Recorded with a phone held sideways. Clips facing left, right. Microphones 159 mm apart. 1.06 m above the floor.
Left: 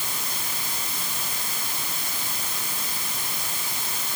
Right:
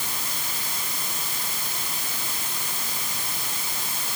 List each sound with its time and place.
Only background noise.